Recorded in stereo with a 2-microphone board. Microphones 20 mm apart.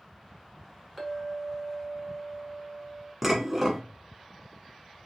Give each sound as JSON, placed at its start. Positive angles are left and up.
{"t": 1.0, "sound": "a clink", "side_deg": -5, "distance_m": 0.9}
{"t": 3.2, "sound": "dishes clattering", "side_deg": -15, "distance_m": 0.8}